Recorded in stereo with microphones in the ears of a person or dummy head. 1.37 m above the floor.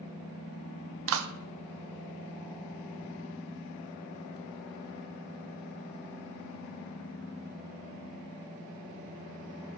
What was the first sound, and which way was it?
A clap, 75° right (ahead or behind).